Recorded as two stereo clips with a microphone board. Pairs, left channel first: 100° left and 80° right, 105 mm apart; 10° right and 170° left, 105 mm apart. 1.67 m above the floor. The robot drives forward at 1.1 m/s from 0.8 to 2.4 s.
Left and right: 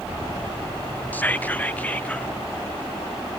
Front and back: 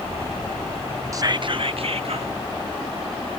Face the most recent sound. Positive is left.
turn(degrees=175)